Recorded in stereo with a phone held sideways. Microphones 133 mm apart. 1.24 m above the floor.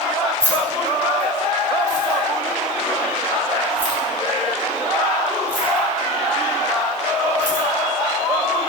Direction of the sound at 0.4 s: 15° right (ahead or behind).